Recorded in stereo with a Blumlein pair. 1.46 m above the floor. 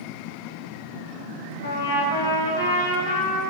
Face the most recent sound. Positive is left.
turn(degrees=65)